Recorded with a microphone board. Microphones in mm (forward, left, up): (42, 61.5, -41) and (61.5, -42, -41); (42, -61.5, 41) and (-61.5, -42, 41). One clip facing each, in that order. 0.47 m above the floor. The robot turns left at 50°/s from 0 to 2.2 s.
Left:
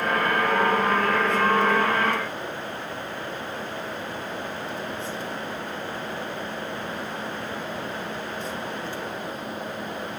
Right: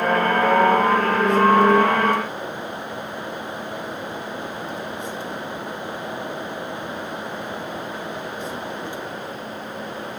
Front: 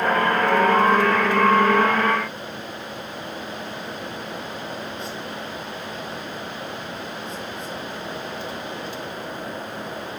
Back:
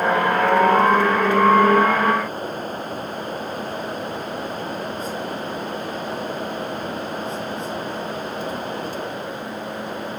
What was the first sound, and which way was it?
Only background noise.